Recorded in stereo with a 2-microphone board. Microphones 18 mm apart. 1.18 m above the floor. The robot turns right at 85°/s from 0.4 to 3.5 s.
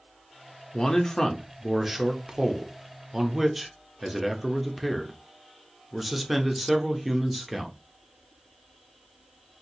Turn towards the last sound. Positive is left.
turn(degrees=-20)